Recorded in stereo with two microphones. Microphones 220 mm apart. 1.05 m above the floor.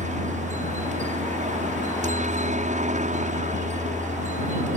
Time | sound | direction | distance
0.0 | a helicopter | 35° right (ahead or behind) | ?